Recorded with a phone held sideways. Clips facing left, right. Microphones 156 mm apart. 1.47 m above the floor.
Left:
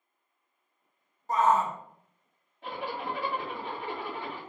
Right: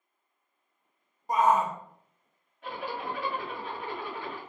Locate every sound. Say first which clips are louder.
1.3 s a shout: right 1 dB; 15° right (ahead or behind), 0.5 m
2.6 s a zipper: even; 30° left (ahead or behind), 1.6 m